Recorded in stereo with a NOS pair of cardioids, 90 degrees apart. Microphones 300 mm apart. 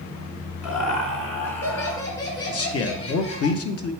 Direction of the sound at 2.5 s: 50° left.